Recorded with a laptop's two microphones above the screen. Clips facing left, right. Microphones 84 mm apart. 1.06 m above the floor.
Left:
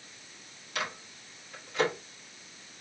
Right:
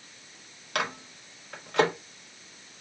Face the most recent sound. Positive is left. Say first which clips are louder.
# right 5 dB
turn(degrees=-65)  # may be behind; listen again after turning